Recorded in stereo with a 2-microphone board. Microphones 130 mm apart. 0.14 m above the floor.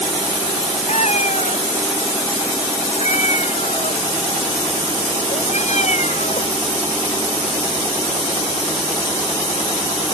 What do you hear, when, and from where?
0.9 s a cat meowing: 60° left (ahead or behind)